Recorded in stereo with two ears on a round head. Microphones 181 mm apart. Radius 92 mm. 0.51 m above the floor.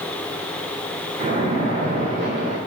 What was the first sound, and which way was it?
A splash, 35° right (ahead or behind).